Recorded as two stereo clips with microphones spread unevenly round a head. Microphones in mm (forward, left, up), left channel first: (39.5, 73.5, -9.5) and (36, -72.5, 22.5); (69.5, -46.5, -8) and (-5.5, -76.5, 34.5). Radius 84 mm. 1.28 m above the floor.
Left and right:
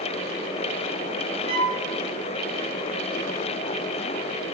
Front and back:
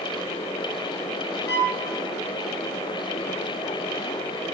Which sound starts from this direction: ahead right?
A violin, at 1.5 s.